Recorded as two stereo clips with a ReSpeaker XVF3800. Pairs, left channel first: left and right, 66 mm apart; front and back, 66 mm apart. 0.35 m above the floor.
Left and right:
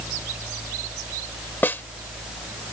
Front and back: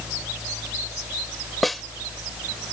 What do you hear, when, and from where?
1.6 s a snare drum: 90° left